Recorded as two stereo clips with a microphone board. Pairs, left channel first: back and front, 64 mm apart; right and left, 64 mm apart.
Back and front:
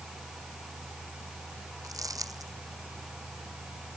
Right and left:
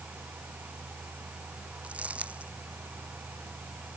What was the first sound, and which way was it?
Crumpling, 20° left.